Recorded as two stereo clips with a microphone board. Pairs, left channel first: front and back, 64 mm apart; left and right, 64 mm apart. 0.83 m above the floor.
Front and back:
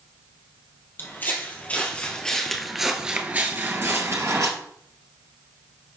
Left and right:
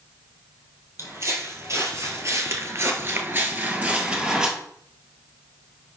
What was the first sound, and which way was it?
Footsteps, 50° right.